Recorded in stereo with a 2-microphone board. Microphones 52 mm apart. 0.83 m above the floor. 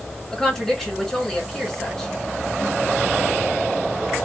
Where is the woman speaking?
5° left (ahead or behind), 1.9 m.